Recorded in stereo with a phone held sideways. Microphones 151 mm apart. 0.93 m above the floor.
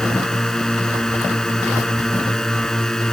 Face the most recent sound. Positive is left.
turn(degrees=5)  # may be behind; listen again after turning